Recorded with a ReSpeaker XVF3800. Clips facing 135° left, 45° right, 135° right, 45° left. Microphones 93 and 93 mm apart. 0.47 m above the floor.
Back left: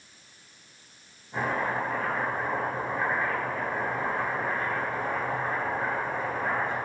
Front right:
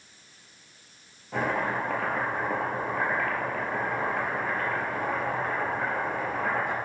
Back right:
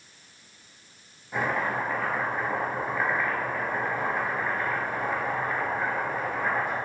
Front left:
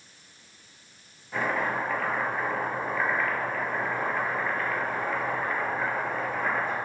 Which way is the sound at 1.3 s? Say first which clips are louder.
Front right 1 dB, even; 55° right.